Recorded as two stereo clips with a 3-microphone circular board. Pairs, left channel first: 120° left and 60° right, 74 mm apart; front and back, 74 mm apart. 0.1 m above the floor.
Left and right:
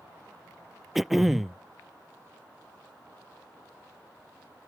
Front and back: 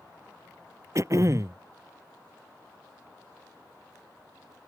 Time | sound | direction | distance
0.9 | throat clearing | 145° right | ?